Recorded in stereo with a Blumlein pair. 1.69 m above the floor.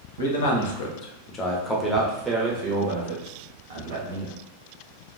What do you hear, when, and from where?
0.2 s a man speaking: 65° left, 1.0 m; by 4.3 s 55° right, 1.5 m